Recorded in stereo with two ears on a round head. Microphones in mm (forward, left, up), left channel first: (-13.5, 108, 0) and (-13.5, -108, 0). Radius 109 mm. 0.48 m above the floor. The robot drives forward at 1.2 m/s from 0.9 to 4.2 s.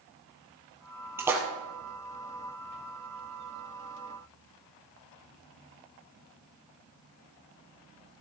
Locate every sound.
1.2 s a splash: 10° right (ahead or behind), 3 m